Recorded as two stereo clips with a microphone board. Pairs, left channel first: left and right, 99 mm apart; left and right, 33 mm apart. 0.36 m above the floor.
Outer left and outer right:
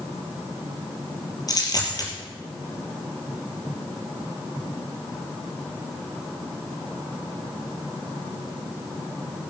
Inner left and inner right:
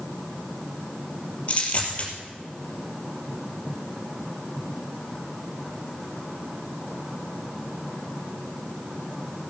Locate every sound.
1.5 s a dropped coin: 40° left (ahead or behind), 3.5 m